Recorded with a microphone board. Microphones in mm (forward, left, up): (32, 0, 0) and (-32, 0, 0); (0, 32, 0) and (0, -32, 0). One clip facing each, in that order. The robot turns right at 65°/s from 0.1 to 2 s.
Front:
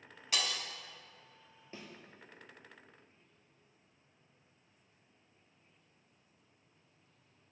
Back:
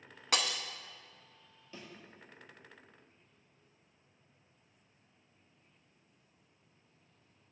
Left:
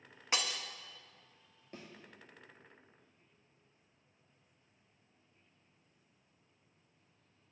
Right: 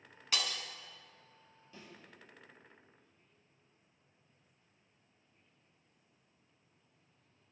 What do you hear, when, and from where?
0.3 s breaking glass: 155° left, 0.5 m; by 0.6 s 170° left, 0.5 m
1.7 s a thud: 55° left, 1.7 m; by 1.9 s 65° left, 1.7 m